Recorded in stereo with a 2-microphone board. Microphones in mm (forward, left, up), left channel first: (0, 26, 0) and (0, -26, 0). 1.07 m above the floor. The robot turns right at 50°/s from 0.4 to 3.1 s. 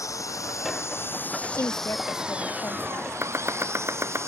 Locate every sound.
0.0 s an engine running: 105° left; by 4.3 s 120° right
1.5 s a woman speaking: 55° left; by 3.1 s 135° left
3.2 s chopping: 55° right (ahead or behind)